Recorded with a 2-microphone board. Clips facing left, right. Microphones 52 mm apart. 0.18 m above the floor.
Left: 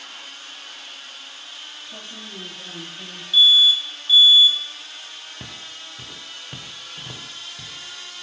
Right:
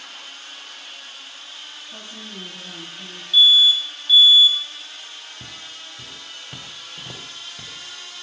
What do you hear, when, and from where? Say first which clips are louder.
1.9 s a woman speaking: even; 10° left (ahead or behind), 3.5 m; by 3.2 s 30° left (ahead or behind), 3 m
3.3 s an alarm: right 1 dB; 5° left (ahead or behind), 0.7 m
5.4 s footsteps: left 1 dB; 40° left (ahead or behind), 0.9 m; by 8.1 s 25° right (ahead or behind), 1.5 m